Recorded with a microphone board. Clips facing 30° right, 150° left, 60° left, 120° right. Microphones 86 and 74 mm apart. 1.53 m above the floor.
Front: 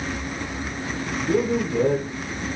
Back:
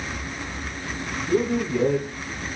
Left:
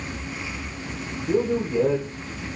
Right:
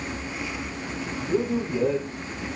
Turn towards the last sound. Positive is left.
turn(degrees=10)